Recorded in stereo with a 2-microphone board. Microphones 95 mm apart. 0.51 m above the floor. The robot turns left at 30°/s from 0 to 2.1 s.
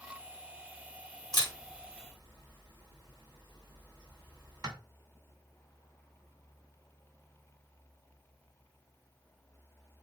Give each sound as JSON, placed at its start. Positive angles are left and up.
{"t": 1.3, "sound": "a camera shutter", "side_deg": -45, "distance_m": 2.0}